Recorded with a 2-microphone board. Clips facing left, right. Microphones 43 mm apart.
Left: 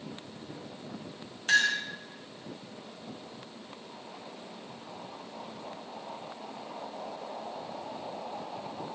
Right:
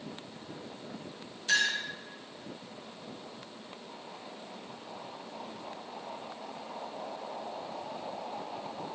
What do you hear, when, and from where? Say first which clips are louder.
1.5 s a clink: left 3 dB; 50° left (ahead or behind), 1.4 m